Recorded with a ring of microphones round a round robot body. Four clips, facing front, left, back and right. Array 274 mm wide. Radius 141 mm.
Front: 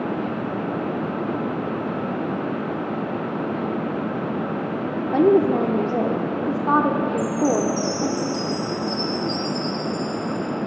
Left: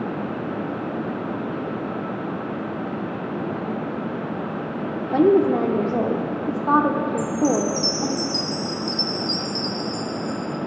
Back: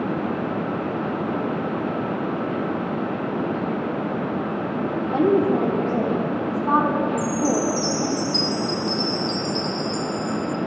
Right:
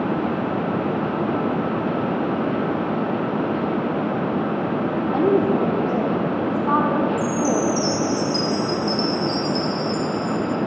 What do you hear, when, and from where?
5.1 s a woman speaking: 45° left, 1.0 m
7.2 s a chime: 145° left, 1.5 m